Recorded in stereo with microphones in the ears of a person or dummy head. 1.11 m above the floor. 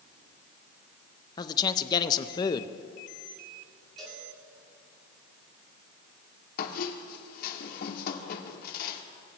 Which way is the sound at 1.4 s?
20° left (ahead or behind).